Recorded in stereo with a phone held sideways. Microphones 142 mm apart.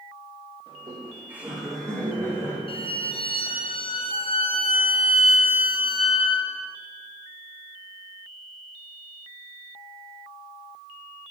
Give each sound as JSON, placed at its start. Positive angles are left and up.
{"t": 0.7, "sound": "laughter", "side_deg": -35, "distance_m": 2.5}
{"t": 2.7, "sound": "a violin", "side_deg": 40, "distance_m": 0.8}